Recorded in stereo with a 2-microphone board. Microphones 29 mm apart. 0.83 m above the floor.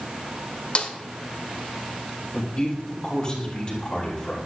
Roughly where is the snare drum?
Left.